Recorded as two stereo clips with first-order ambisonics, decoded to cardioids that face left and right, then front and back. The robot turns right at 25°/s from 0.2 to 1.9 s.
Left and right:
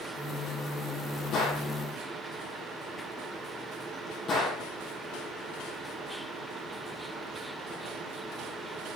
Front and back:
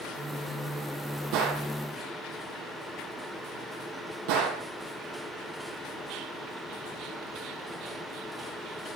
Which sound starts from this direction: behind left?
A gunshot, at 1.3 s.